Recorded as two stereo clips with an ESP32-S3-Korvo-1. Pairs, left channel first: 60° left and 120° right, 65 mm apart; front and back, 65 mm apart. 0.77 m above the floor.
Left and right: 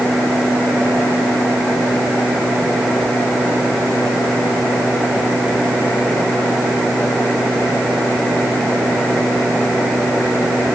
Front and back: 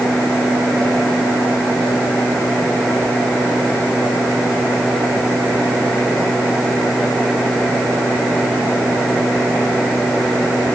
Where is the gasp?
I don't hear a gasp.